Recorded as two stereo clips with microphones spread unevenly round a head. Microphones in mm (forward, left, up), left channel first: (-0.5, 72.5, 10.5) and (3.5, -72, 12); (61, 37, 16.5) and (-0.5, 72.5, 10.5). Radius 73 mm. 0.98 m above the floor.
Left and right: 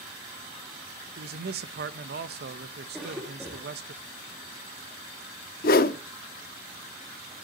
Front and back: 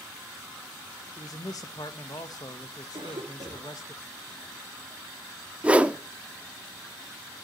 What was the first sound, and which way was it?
A man speaking, 85° right.